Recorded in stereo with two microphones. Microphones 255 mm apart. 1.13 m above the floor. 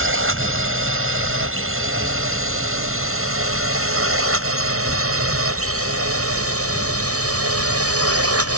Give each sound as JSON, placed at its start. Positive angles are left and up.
{"t": 0.0, "sound": "a drone", "side_deg": -55}